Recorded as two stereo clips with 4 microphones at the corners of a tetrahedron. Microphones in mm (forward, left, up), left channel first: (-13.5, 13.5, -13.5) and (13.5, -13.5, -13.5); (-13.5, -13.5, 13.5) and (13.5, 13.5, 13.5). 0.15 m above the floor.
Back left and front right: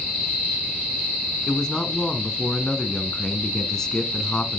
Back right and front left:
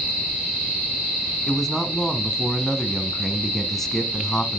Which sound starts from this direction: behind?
A man speaking, at 1.5 s.